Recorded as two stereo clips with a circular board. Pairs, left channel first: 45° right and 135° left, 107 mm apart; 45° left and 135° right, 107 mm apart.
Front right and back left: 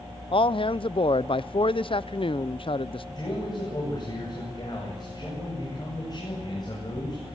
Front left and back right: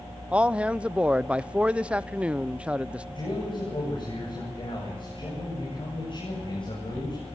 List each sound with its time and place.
0.3 s a man speaking: 60° right, 0.6 m
3.1 s a man speaking: 5° left, 8.5 m